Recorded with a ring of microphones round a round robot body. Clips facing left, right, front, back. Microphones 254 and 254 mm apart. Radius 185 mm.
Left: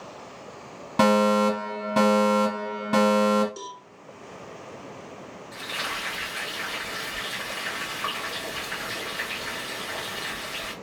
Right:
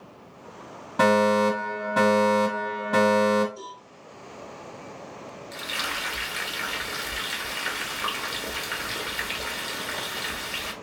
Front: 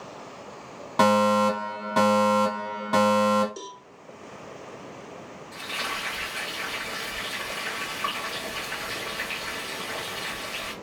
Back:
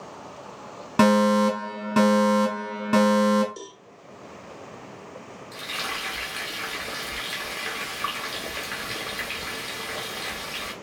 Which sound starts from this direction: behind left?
A fire alarm, at 1.0 s.